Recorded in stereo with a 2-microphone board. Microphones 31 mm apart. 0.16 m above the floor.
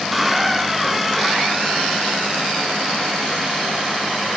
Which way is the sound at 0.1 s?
5° right (ahead or behind).